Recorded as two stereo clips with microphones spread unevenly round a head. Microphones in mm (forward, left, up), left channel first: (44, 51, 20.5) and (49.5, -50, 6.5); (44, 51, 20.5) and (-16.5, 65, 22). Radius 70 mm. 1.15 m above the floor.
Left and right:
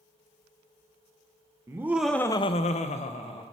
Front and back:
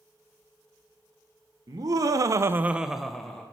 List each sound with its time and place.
1.7 s laughter: 155° right, 0.9 m; by 3.4 s 70° left, 1.2 m